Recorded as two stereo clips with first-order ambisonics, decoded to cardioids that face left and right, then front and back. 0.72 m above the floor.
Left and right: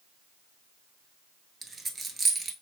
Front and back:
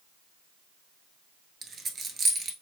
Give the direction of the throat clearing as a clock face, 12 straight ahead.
No throat clearing in this recording.